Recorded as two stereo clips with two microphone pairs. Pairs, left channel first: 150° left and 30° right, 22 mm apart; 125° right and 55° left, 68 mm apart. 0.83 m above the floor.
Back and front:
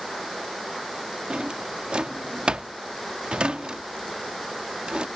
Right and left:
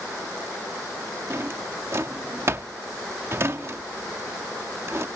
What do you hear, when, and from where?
1.3 s a drawer: 10° left